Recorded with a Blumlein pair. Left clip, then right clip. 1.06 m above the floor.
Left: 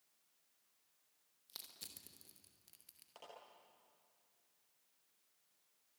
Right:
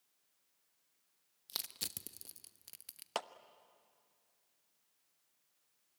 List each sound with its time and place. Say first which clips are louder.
1.5 s crushing: right 11 dB; 30° right, 0.9 m
3.1 s a clap: right 18 dB; 50° right, 0.9 m